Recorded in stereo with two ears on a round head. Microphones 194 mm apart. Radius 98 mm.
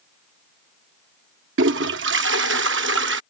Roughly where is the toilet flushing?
Right.